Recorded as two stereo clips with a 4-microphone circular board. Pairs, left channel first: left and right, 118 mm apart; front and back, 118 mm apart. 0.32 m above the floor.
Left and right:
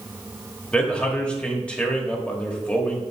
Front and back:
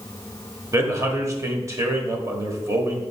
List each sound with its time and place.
0.7 s a man speaking: 160° left, 1.3 m